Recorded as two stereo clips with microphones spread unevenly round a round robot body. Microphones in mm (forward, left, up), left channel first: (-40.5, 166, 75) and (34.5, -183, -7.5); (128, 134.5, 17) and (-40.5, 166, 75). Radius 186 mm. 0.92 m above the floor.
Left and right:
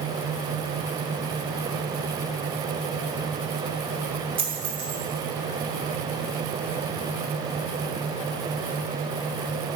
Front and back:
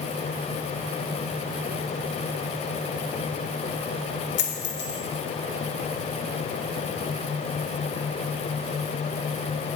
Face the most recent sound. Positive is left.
turn(degrees=0)